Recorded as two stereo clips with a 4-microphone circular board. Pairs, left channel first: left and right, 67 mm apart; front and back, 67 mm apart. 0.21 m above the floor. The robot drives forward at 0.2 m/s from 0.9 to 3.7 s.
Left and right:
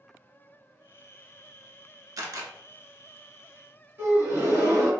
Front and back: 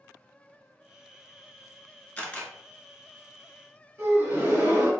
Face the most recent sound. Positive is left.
turn(degrees=-140)